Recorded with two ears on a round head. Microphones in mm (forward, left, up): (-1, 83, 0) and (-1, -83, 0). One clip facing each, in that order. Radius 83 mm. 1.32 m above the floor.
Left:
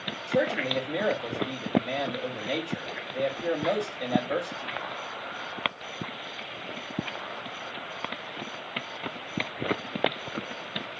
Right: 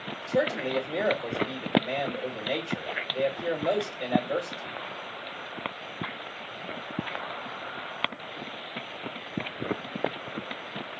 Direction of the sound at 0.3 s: Centre (ahead or behind).